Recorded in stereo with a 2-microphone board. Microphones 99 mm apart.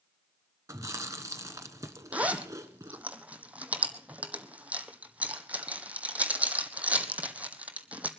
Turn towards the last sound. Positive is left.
turn(degrees=-15)  # may be behind; listen again after turning